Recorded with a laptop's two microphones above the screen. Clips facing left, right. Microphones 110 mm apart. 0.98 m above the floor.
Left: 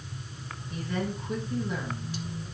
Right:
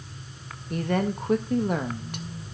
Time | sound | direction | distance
0.7 | a woman speaking | 60° right (ahead or behind) | 1.5 m